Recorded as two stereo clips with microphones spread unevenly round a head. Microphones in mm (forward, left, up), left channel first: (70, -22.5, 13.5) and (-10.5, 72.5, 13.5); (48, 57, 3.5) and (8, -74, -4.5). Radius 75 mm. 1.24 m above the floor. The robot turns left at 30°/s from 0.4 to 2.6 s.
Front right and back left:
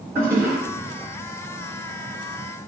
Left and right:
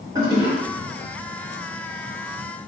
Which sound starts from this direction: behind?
A toilet flushing, at 0.1 s.